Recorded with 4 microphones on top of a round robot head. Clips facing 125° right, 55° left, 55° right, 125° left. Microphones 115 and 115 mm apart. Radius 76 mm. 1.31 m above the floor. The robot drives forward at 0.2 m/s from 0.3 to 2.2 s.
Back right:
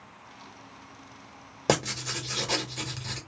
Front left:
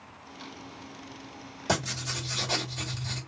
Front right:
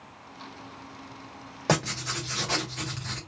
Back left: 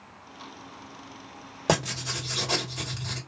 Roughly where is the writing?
Behind.